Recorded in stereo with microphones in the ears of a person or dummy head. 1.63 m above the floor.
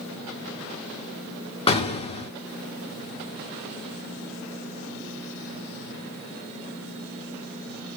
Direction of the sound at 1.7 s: 25° left (ahead or behind).